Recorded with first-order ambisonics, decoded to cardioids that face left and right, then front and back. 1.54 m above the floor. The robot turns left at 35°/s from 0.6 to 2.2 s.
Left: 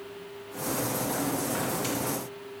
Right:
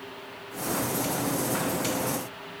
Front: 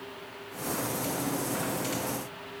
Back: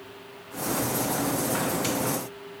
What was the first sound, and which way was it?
Only background noise.